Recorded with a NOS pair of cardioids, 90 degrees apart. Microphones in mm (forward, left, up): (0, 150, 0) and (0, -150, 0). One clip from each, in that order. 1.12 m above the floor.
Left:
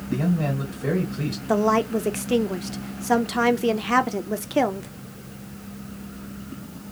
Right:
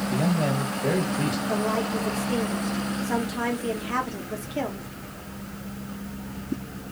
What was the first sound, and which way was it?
A man speaking, 10° left.